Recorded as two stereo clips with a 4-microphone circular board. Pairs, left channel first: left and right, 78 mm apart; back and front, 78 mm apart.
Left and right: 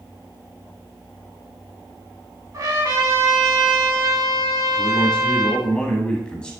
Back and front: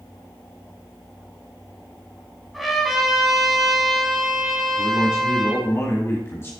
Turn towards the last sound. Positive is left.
turn(degrees=160)